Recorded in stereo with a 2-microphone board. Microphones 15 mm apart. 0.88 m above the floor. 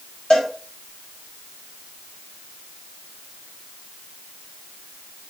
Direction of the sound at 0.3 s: 85° left.